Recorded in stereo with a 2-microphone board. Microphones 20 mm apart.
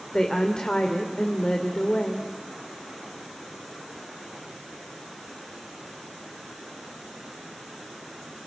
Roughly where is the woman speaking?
Left.